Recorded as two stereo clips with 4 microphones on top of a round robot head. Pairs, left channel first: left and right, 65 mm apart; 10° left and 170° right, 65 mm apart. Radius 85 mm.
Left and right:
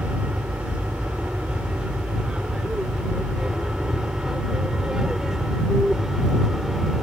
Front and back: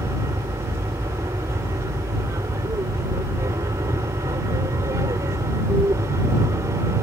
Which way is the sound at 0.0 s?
160° right.